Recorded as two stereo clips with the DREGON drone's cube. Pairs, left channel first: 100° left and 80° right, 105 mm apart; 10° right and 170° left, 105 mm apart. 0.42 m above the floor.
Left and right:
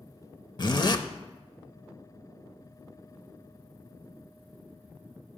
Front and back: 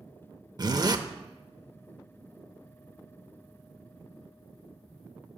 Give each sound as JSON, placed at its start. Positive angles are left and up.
{"t": 0.6, "sound": "a zipper", "azimuth_deg": 130, "distance_m": 0.6}